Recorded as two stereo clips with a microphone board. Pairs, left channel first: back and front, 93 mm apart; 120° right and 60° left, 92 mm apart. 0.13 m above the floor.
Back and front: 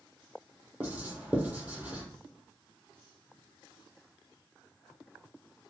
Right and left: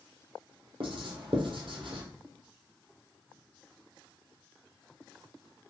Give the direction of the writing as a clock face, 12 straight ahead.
10 o'clock.